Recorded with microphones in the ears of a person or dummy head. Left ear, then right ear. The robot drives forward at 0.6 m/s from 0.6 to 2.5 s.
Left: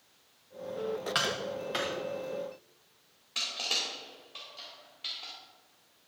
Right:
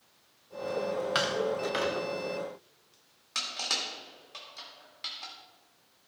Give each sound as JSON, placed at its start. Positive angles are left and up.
{"t": 1.1, "sound": "tapping", "side_deg": -10, "distance_m": 0.9}
{"t": 3.4, "sound": "crushing", "side_deg": -60, "distance_m": 2.5}